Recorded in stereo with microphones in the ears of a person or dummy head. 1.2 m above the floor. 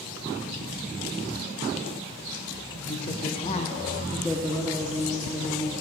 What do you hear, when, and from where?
2.8 s a woman speaking: 25° left (ahead or behind), 1.2 m; by 5.7 s 15° right (ahead or behind), 1.7 m